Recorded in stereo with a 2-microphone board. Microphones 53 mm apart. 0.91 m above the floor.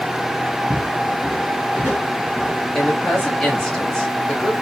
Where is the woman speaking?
15° left (ahead or behind), 1.9 m.